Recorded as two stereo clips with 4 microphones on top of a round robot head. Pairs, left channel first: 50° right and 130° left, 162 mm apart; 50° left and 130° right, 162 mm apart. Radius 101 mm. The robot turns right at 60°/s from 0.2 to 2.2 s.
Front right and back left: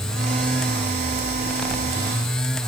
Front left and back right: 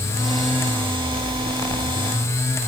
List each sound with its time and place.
Only background noise.